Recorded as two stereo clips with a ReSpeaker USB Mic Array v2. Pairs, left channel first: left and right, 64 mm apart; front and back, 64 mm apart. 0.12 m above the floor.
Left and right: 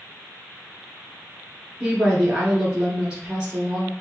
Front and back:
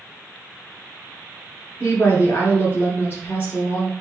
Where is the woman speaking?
25° right, 1.7 m.